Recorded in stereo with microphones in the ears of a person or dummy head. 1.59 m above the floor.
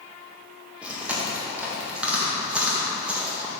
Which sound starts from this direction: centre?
Chewing, at 0.8 s.